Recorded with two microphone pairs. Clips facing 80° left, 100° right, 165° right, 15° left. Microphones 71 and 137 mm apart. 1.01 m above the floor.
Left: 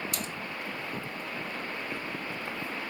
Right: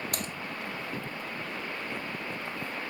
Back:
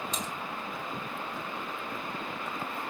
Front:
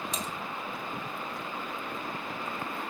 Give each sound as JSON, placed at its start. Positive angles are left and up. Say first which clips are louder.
{"t": 0.1, "sound": "typing on a keyboard", "louder": "even, even", "azimuth_deg": -60, "distance_m": 3.5}